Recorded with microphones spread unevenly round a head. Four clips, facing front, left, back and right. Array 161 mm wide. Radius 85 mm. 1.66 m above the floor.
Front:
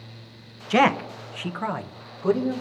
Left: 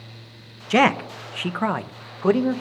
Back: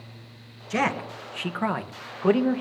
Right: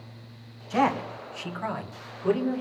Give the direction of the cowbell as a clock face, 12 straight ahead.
No cowbell in this recording.